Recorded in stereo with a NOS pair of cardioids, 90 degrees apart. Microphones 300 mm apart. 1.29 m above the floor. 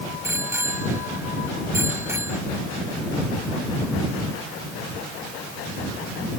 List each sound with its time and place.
0.2 s a bicycle bell: 10° right